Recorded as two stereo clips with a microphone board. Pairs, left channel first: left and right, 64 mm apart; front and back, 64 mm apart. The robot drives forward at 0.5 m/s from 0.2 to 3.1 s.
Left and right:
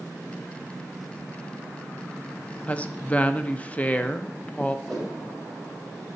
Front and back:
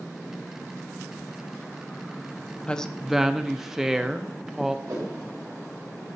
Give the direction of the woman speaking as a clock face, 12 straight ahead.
10 o'clock.